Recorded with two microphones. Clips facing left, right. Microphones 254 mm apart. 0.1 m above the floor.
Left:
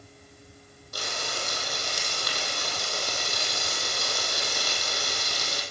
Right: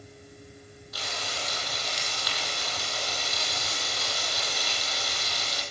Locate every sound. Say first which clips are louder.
0.9 s frying: left 3 dB; 55° left (ahead or behind), 3 m